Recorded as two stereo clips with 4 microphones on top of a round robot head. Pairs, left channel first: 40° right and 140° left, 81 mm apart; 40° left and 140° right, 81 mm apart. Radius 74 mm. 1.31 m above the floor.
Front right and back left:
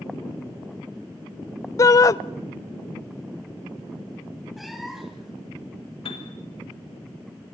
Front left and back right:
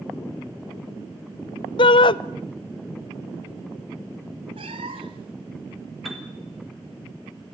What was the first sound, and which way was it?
A shout, 15° left.